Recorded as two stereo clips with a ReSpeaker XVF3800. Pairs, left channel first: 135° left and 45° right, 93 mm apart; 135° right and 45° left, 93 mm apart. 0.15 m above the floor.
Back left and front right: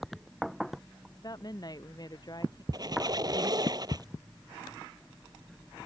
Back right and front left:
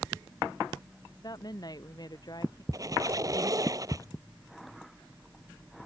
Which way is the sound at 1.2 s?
Straight behind.